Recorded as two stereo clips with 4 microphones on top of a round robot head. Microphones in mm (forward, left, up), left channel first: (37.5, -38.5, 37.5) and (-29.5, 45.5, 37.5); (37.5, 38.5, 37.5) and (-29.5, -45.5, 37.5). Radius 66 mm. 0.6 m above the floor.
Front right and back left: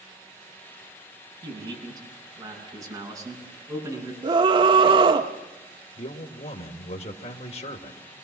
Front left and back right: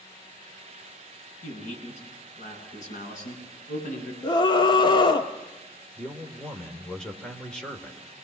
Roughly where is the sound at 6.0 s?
Ahead right.